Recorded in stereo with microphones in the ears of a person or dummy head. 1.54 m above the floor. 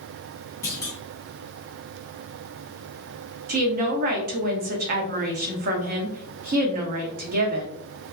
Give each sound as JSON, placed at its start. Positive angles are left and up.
{"t": 0.6, "sound": "a clunk", "side_deg": 15, "distance_m": 0.6}
{"t": 3.5, "sound": "a woman speaking", "side_deg": -45, "distance_m": 0.7}